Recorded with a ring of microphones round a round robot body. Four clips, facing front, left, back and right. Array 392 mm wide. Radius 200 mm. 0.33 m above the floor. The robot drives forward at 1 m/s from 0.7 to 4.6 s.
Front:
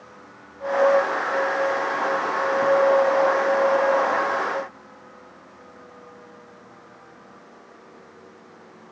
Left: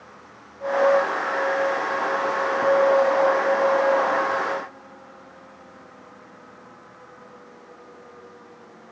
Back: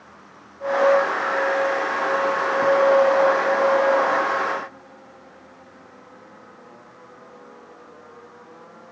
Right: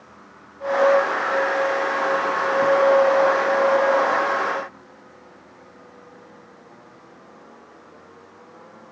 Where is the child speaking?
No child speaking in this recording.